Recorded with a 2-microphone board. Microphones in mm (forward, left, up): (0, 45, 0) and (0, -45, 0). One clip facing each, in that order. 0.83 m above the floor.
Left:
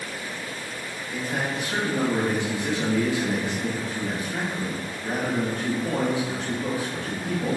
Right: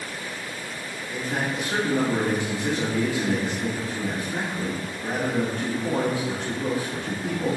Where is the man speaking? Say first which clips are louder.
Right 1 dB; 35° right (ahead or behind), 1.3 m.